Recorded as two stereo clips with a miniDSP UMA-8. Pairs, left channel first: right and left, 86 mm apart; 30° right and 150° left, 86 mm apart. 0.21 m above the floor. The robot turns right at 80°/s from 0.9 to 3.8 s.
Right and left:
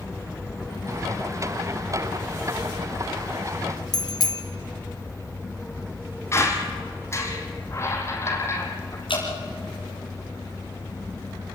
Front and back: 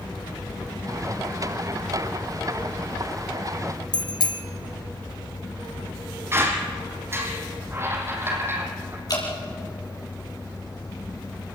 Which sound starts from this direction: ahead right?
A bicycle bell, at 3.9 s.